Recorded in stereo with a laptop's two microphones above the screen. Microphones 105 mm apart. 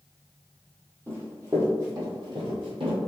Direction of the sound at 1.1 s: 25° right (ahead or behind).